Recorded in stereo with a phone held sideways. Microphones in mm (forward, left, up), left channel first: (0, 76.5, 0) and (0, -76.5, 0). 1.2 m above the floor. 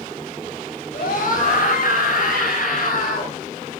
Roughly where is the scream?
Left.